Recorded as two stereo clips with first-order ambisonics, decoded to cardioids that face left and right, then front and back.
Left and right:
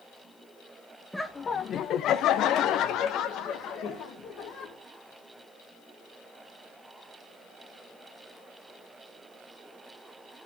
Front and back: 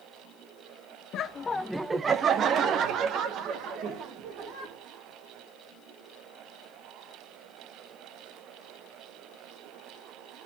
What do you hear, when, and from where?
1.1 s laughter: straight ahead, 0.5 m; by 4.7 s 140° left, 2.5 m